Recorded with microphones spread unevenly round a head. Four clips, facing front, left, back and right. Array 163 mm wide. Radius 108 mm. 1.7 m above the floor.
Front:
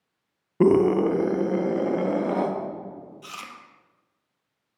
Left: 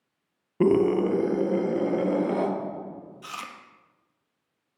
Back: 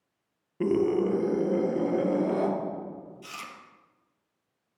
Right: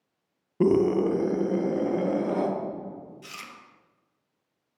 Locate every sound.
0.6 s a scream: 35° left, 0.8 m; by 2.5 s 20° left, 3.5 m
3.2 s chewing: 75° left, 1.6 m